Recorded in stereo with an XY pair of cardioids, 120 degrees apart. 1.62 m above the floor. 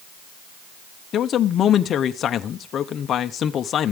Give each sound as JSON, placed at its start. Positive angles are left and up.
{"t": 1.1, "sound": "a man speaking", "azimuth_deg": 50, "distance_m": 0.9}